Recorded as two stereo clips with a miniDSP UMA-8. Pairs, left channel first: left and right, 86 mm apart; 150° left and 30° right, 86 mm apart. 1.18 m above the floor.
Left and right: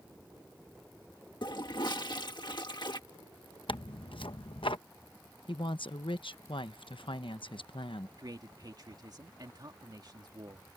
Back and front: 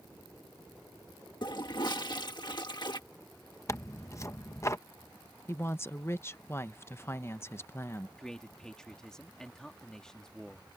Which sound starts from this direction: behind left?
A toilet flushing, at 1.4 s.